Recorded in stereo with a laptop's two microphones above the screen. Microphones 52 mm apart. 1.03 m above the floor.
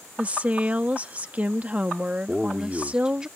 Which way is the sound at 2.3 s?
15° right (ahead or behind).